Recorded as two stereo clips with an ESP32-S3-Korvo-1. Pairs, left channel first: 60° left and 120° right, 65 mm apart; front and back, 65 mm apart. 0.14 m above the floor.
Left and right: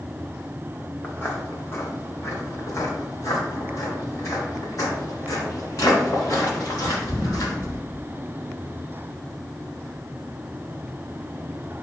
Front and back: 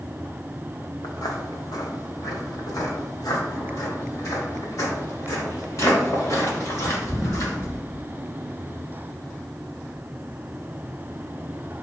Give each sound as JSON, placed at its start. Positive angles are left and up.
{"t": 1.0, "sound": "footsteps", "azimuth_deg": 0, "distance_m": 1.8}